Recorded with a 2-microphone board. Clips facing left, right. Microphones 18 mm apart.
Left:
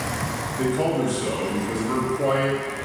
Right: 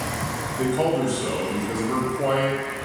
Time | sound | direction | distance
0.6 | a man speaking | 10° right (ahead or behind) | 1.8 m